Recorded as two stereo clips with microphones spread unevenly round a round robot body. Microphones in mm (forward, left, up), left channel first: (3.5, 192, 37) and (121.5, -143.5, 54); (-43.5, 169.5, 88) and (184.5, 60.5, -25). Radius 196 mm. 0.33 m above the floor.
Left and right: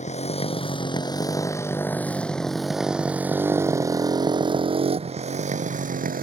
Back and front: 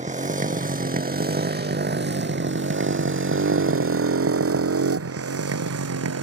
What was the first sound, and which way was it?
A motorcycle, 40° left.